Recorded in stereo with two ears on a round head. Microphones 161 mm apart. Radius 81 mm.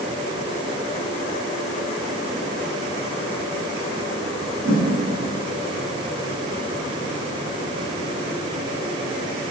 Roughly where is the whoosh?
Right.